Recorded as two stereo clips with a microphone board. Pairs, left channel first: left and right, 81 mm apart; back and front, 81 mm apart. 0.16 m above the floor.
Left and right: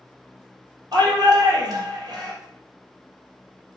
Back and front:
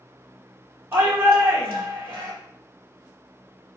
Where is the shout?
60° right, 3.5 m.